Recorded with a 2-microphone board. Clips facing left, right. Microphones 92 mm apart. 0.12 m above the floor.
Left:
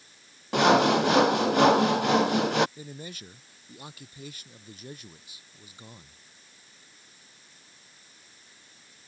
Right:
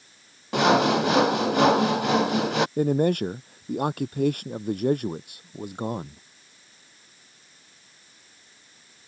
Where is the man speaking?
60° right (ahead or behind).